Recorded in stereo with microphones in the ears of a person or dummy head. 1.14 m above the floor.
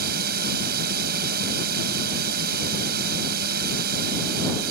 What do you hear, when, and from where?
0.0 s a drone: 55° right (ahead or behind)